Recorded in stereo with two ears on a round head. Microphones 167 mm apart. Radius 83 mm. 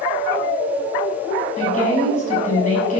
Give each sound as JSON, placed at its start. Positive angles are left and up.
{"t": 1.6, "sound": "a woman speaking", "side_deg": 40, "distance_m": 6.5}